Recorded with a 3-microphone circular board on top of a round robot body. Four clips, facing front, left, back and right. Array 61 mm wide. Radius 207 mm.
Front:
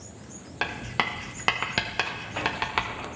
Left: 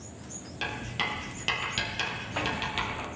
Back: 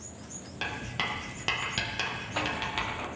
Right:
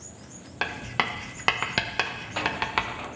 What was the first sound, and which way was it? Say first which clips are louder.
Writing: right 5 dB, front 5 dB; 55° right.